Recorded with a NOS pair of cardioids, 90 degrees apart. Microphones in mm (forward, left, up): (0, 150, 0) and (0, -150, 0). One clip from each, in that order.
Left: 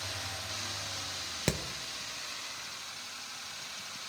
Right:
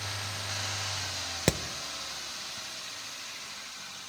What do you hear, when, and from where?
1.5 s hammering: 20° right, 0.5 m